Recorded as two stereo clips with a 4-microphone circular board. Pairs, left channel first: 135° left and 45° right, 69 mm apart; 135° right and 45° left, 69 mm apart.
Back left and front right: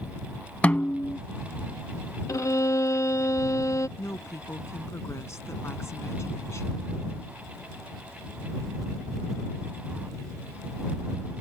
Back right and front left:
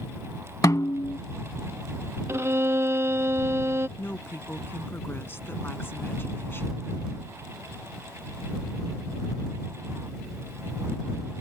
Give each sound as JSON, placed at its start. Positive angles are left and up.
{"t": 0.6, "sound": "a snare drum", "azimuth_deg": -160}
{"t": 2.3, "sound": "a violin", "azimuth_deg": 95}
{"t": 4.0, "sound": "a woman speaking", "azimuth_deg": 170}